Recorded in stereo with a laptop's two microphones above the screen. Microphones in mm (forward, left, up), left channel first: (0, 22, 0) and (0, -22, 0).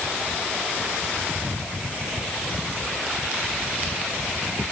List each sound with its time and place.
Only background noise.